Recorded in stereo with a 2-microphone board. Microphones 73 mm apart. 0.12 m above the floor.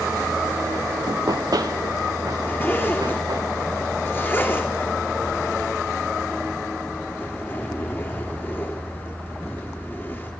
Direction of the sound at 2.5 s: 30° left (ahead or behind).